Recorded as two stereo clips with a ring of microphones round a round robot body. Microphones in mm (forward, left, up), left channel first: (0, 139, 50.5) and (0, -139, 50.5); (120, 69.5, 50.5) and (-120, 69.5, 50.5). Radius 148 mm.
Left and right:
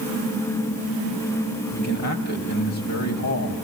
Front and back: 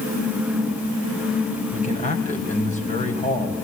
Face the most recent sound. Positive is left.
turn(degrees=60)